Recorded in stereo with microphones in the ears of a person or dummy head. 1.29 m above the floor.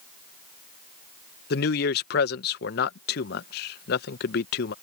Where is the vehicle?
No vehicle in this recording.